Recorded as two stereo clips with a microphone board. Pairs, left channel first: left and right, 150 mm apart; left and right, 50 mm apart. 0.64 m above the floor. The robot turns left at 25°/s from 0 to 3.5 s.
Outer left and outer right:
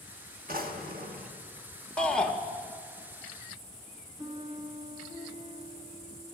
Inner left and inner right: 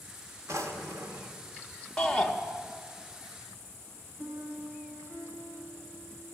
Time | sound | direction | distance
0.5 | a drawer | 70° right (ahead or behind) | 1.0 m
2.0 | a shout | 5° left (ahead or behind) | 0.6 m
4.2 | a piano | 35° right (ahead or behind) | 2.5 m